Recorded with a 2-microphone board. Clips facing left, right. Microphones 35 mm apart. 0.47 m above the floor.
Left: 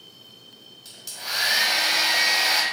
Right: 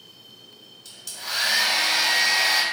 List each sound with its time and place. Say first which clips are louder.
0.8 s a hair dryer: even; 10° left (ahead or behind), 1.0 m